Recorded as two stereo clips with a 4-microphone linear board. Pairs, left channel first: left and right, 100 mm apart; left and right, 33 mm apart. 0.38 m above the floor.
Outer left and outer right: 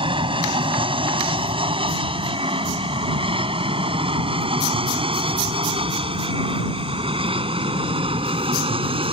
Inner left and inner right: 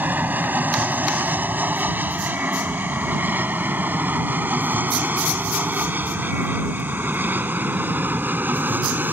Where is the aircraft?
60° right (ahead or behind); by 9.1 s 65° right (ahead or behind).